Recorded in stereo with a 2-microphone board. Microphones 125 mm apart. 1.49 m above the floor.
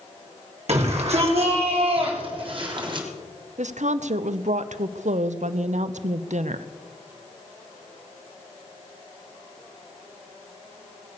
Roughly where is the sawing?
No sawing in this recording.